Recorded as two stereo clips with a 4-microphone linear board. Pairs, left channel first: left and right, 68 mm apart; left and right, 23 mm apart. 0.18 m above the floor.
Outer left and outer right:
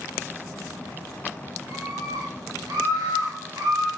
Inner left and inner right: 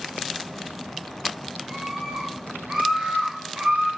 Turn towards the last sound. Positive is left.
turn(degrees=-70)  # may be behind; listen again after turning